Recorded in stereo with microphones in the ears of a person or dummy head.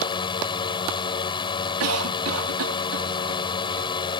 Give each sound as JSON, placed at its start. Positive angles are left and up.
{"t": 0.0, "sound": "a drone", "side_deg": 30}
{"t": 1.8, "sound": "a cough", "side_deg": -80}